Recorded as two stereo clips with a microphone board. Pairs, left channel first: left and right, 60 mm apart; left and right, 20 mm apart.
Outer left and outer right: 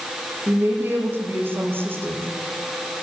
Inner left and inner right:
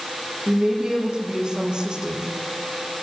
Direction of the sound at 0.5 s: 35° right (ahead or behind).